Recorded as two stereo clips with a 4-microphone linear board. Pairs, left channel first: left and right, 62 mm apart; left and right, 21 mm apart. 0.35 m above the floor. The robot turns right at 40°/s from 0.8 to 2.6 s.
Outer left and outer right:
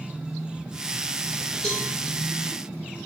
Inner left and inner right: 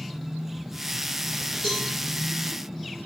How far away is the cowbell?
About 1.3 m.